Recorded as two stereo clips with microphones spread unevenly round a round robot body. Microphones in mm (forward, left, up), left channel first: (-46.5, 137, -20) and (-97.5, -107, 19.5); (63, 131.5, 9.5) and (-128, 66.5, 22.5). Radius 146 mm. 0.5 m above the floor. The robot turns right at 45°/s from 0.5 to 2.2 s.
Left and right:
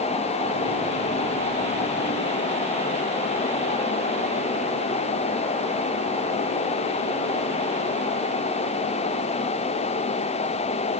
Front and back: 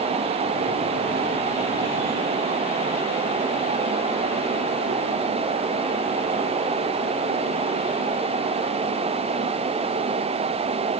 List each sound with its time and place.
Only background noise.